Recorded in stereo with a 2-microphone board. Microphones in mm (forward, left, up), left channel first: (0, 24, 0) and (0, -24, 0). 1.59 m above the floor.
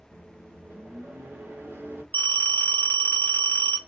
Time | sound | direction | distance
0.1 | a microwave | 55° right (ahead or behind) | 2.0 m
2.1 | a phone ringing | 45° left (ahead or behind) | 1.2 m